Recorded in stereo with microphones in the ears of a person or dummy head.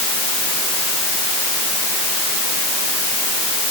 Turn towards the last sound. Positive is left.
No sound to turn to.